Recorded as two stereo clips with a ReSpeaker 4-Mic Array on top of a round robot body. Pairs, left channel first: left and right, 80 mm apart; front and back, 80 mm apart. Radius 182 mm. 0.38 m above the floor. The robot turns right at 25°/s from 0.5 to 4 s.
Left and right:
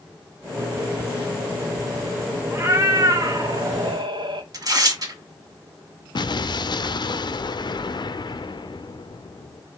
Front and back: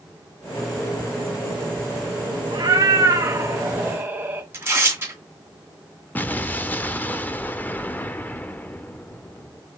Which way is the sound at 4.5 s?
120° right.